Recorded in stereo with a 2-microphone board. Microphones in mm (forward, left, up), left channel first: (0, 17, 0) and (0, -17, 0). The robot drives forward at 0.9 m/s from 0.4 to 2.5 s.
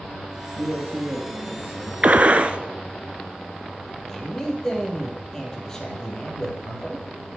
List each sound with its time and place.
0.6 s a man speaking: 55° right (ahead or behind), 2 m; by 1.9 s 45° right (ahead or behind), 2.5 m
2.0 s a gunshot: 45° right (ahead or behind), 0.5 m; by 2.6 s 35° right (ahead or behind), 0.6 m
4.1 s a man speaking: 15° left (ahead or behind), 3 m